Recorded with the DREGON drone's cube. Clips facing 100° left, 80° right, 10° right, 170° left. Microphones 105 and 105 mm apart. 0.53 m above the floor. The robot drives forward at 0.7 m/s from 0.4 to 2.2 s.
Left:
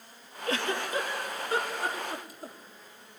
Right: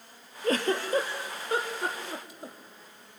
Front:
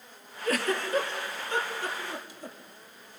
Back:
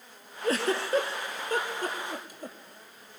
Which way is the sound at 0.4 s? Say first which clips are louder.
Right 4 dB, back 1 dB; 130° right.